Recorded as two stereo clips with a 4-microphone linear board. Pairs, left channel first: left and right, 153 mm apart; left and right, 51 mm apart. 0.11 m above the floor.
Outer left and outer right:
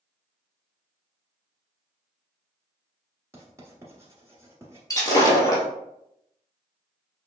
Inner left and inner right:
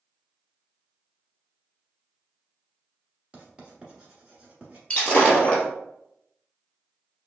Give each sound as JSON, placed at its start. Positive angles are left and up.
{"t": 3.3, "sound": "writing", "side_deg": -20, "distance_m": 1.4}
{"t": 4.9, "sound": "breaking glass", "side_deg": 25, "distance_m": 1.6}